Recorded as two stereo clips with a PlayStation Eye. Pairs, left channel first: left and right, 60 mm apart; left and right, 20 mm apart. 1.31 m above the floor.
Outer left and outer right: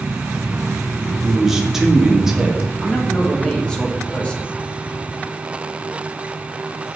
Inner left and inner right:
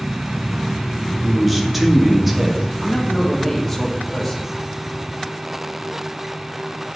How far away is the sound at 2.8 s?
About 2 m.